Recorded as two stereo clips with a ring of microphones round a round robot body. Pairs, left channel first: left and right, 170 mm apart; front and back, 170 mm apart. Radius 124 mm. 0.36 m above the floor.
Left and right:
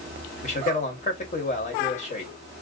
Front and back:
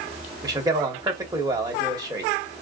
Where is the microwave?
I don't hear a microwave.